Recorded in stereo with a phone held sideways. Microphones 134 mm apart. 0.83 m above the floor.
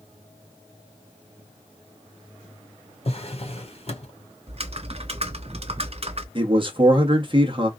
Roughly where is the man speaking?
Right.